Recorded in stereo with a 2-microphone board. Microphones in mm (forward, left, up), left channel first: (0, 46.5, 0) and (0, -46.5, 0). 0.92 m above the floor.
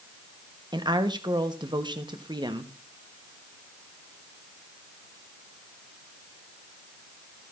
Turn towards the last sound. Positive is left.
turn(degrees=-50)  # may be behind; listen again after turning